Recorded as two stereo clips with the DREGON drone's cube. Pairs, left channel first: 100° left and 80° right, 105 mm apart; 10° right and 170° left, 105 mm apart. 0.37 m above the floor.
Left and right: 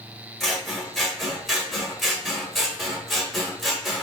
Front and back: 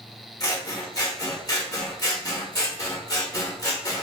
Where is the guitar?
No guitar in this recording.